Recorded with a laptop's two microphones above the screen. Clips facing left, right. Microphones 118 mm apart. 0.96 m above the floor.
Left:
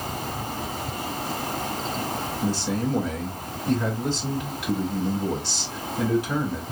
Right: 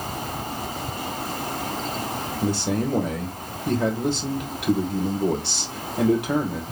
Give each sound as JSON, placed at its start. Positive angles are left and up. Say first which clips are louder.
{"t": 2.4, "sound": "a man speaking", "louder": "right 3 dB", "side_deg": -70, "distance_m": 3.0}